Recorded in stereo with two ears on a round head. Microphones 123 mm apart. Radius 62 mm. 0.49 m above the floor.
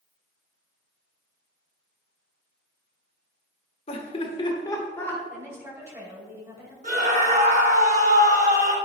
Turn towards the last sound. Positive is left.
turn(degrees=-55)  # may be behind; listen again after turning